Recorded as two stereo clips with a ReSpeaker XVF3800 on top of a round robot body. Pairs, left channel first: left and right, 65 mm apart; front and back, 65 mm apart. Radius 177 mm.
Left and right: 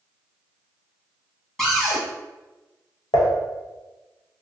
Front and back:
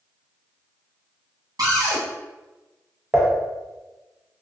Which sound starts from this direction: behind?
A cupboard door, at 1.6 s.